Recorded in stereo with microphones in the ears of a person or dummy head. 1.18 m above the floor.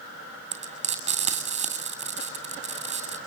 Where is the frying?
30° right (ahead or behind), 3 m.